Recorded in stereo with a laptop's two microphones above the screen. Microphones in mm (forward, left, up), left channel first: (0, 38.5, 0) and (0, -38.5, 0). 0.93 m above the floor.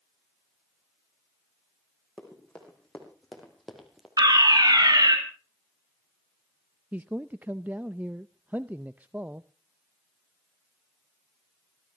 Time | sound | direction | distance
2.2 | running footsteps | 10° left (ahead or behind) | 4 m
4.2 | a fire alarm | 65° right (ahead or behind) | 3 m
6.9 | a man speaking | 25° right (ahead or behind) | 0.5 m